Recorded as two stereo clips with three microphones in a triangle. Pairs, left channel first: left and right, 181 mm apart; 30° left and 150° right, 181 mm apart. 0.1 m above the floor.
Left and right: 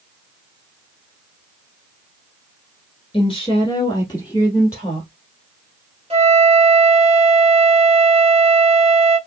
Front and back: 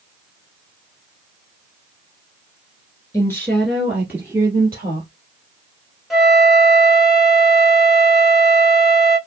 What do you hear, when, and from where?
3.1 s a woman speaking: 80° left, 1.2 m; by 5.1 s 160° left, 1.6 m
6.1 s a flute: 65° right, 1.1 m